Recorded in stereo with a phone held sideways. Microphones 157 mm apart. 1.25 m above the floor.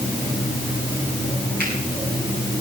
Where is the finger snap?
85° right, 9 m.